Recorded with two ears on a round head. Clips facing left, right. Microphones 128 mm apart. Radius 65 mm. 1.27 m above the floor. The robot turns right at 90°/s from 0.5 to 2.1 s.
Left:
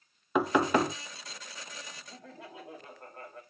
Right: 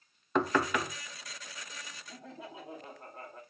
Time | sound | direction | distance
0.3 | knocking | 5° left | 0.5 m
2.1 | laughter | centre (ahead or behind) | 2.5 m